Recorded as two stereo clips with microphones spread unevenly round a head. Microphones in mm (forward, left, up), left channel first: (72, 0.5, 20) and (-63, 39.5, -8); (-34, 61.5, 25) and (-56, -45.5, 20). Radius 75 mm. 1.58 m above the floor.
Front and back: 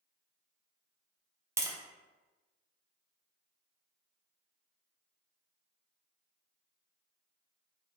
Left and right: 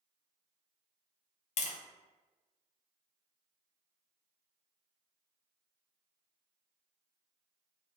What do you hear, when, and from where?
1.6 s tapping: 95° left, 0.6 m